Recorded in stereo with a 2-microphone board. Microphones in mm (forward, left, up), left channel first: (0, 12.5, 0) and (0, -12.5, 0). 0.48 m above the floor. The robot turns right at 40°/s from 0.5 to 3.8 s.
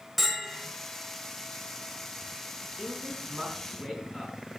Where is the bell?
10° right (ahead or behind), 1.6 m; by 0.7 s 5° right (ahead or behind), 1.6 m.